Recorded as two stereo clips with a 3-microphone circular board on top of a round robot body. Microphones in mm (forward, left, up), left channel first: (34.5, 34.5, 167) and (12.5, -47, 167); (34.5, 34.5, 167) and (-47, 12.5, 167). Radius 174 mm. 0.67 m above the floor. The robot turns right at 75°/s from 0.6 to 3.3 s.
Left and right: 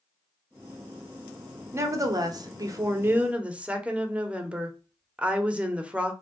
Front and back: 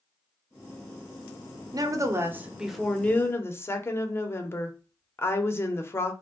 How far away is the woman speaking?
About 1.0 m.